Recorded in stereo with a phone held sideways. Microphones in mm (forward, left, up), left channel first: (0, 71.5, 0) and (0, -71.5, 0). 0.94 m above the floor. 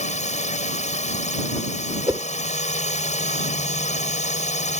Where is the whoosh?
25° right (ahead or behind).